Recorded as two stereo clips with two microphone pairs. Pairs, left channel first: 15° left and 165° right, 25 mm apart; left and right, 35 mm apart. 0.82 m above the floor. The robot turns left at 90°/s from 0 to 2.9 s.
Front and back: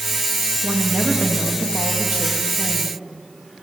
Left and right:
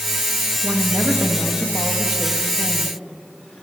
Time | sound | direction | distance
0.6 | a woman speaking | 25° right | 0.9 m